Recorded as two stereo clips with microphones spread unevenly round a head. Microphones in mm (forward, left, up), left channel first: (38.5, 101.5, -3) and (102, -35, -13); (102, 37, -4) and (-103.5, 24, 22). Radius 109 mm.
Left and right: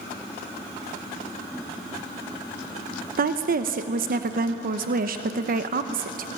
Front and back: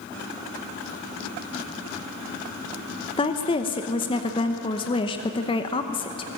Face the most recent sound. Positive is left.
turn(degrees=-60)